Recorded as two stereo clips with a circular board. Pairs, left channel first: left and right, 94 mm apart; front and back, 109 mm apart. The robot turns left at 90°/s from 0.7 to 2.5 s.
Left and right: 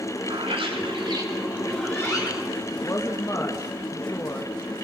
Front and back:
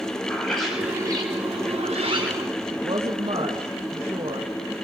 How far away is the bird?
About 4.5 m.